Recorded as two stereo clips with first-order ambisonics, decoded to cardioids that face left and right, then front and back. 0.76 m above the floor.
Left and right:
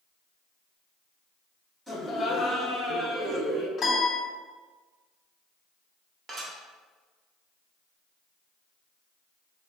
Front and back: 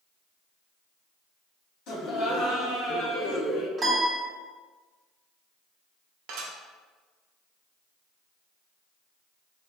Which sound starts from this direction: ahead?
Laughter, at 1.9 s.